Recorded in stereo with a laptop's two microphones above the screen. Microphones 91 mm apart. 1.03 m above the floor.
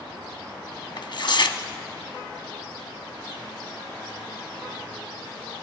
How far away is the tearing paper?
About 0.7 m.